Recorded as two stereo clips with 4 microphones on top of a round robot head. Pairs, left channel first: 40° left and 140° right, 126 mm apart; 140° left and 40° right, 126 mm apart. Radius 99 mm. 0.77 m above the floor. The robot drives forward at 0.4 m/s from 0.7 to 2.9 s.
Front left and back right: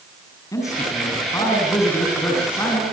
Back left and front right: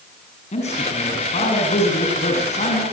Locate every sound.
0.5 s a man speaking: 105° left, 6.5 m; by 2.8 s 110° left, 7 m